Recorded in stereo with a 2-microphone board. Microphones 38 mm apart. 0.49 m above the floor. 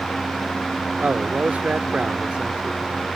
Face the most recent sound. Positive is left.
turn(degrees=-20)  # may be behind; listen again after turning